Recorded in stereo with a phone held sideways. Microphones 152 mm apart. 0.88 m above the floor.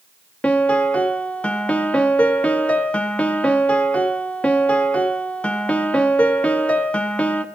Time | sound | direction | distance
0.4 | a piano | 10° left (ahead or behind) | 0.6 m